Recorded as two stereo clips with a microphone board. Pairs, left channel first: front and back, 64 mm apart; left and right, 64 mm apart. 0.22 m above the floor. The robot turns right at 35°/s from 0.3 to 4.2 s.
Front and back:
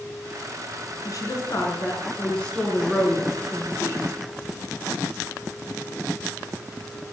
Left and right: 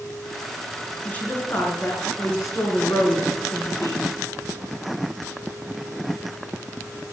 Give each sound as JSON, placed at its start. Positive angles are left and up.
{"t": 1.1, "sound": "a woman speaking", "azimuth_deg": 25, "distance_m": 3.5}